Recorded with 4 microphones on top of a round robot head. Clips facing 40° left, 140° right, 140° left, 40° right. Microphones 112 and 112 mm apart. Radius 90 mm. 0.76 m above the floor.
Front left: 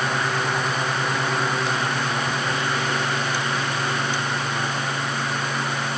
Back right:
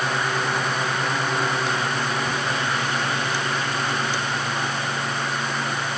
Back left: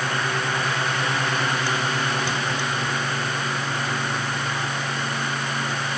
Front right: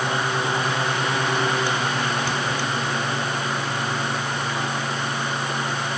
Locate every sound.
Only background noise.